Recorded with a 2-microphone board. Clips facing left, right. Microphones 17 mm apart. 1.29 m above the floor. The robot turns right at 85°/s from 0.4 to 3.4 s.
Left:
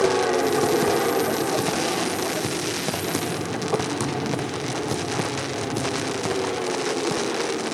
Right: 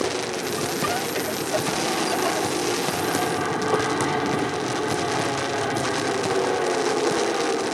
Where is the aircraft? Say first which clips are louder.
Left 6 dB; 60° left; by 7.7 s 45° right.